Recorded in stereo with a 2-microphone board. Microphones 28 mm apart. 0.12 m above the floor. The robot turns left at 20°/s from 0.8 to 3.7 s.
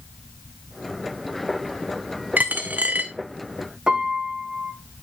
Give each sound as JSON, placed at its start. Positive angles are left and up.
{"t": 2.4, "sound": "a dropped coin", "side_deg": -75, "distance_m": 0.9}
{"t": 3.9, "sound": "a piano", "side_deg": -25, "distance_m": 2.0}